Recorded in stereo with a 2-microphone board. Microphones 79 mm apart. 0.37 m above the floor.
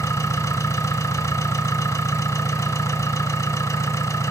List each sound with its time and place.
0.0 s an engine running: 40° left (ahead or behind), 0.8 m